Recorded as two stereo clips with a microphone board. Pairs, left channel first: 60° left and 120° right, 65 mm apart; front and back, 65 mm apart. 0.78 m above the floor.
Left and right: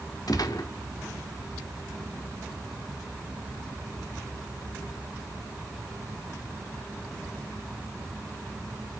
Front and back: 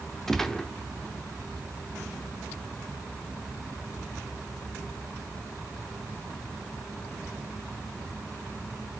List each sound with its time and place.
0.3 s a gunshot: 85° left, 1.2 m